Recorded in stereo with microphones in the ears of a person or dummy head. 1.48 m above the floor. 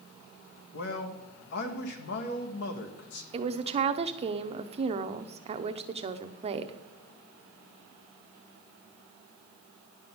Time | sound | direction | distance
0.7 | a man speaking | 60° left (ahead or behind) | 1.5 m
3.3 | a woman speaking | 35° right (ahead or behind) | 0.7 m